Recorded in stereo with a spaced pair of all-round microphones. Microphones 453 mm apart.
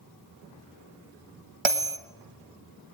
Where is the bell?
80° right, 1.4 m.